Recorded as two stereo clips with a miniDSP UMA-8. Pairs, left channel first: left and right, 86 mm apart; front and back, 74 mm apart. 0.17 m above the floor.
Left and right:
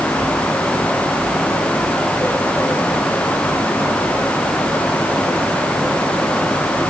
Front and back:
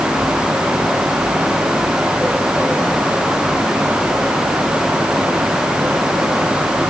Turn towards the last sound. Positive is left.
No sound to turn to.